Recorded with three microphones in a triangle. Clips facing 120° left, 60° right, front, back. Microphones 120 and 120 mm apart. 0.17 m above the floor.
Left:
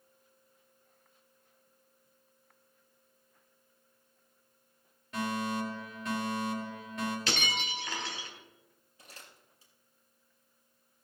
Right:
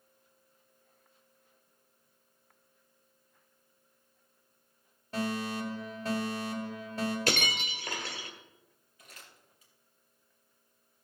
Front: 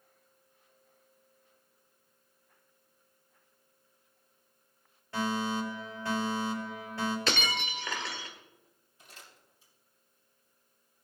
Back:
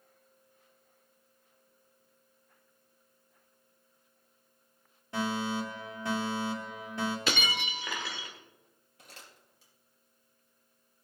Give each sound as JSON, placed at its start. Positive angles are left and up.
{"t": 5.1, "sound": "a fire alarm", "azimuth_deg": -115, "distance_m": 5.5}
{"t": 7.3, "sound": "breaking glass", "azimuth_deg": -100, "distance_m": 1.8}
{"t": 9.0, "sound": "crumpling", "azimuth_deg": 175, "distance_m": 4.0}